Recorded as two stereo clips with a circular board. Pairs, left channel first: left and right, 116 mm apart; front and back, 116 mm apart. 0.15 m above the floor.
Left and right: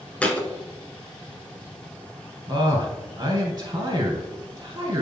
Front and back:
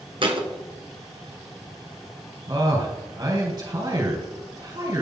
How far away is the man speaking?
About 3 m.